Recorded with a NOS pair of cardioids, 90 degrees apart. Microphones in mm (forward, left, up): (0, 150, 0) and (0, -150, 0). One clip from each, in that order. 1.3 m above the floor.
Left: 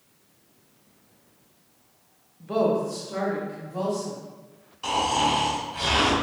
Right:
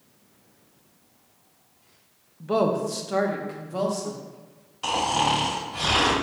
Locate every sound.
2.4 s a woman speaking: 25° right, 0.7 m; by 4.2 s 60° right, 1.5 m
4.8 s snoring: 25° right, 2.0 m